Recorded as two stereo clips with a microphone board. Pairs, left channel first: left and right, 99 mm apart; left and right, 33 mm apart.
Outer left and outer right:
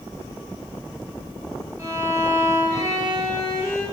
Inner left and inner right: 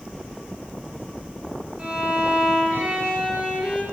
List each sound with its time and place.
1.8 s a violin: 30° right (ahead or behind), 2.5 m